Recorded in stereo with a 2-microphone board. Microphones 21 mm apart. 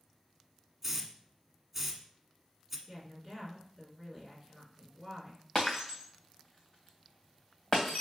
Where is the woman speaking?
15° right (ahead or behind), 3 m.